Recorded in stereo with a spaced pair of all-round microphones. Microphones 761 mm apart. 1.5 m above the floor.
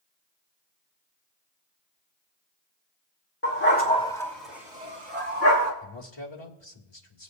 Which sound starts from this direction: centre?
A dog barking, at 3.4 s.